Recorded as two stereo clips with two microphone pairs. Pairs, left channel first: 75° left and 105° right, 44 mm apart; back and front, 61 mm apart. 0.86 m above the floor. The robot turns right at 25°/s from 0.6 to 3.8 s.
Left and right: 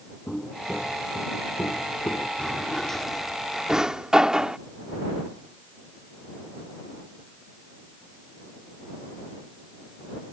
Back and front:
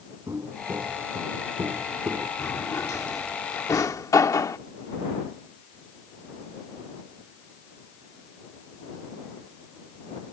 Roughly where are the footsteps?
Ahead.